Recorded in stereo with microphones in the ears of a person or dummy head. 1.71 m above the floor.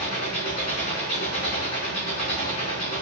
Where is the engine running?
45° left (ahead or behind), 6 m.